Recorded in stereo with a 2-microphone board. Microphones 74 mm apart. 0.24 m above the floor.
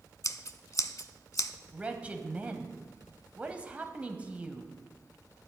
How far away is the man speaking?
About 0.9 m.